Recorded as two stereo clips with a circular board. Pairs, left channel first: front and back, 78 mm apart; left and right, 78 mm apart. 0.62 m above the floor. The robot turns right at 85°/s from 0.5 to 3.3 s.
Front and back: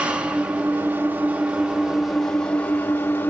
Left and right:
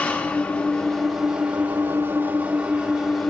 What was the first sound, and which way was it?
An engine running, 130° left.